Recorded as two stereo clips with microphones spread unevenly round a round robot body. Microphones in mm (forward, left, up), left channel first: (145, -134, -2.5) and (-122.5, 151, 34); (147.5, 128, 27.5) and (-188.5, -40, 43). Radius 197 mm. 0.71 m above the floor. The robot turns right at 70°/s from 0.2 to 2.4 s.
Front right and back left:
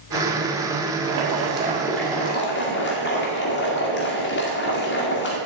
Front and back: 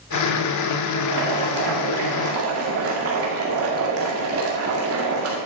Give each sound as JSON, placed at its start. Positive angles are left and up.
{"t": 1.0, "sound": "boiling", "azimuth_deg": 160, "distance_m": 2.0}